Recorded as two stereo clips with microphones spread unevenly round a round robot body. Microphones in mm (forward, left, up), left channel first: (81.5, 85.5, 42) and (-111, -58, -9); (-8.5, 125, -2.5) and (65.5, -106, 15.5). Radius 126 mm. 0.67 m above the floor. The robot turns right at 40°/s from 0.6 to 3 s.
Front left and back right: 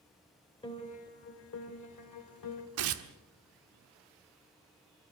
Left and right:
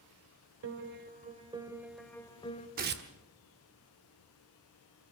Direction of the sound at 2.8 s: 130° right.